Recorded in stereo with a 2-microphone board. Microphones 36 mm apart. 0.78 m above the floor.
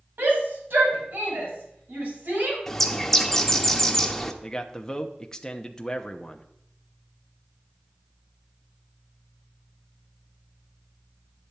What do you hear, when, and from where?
0.2 s a shout: 80° right, 5 m; by 2.6 s 65° right (ahead or behind), 5 m
2.7 s a bird: 15° left (ahead or behind), 0.9 m
4.4 s a man speaking: 15° left (ahead or behind), 0.8 m